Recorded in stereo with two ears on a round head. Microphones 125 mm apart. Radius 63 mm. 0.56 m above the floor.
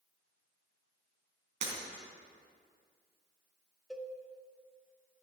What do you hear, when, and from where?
1.6 s breaking glass: 60° right (ahead or behind), 3.5 m
3.9 s a cowbell: 5° right (ahead or behind), 0.7 m